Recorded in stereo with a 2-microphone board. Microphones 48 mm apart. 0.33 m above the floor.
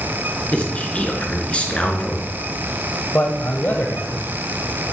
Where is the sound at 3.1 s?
45° left (ahead or behind), 1.4 m.